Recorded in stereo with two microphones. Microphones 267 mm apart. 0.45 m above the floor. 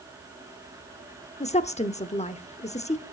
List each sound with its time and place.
1.4 s a woman speaking: 25° left (ahead or behind), 0.9 m